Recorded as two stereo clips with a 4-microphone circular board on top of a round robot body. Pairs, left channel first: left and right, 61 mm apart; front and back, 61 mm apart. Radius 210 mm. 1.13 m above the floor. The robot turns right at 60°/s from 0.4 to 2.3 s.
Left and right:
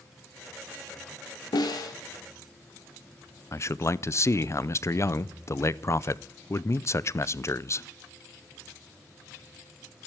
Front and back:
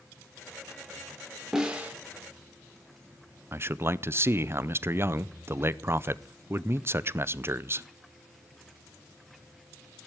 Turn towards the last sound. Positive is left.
turn(degrees=130)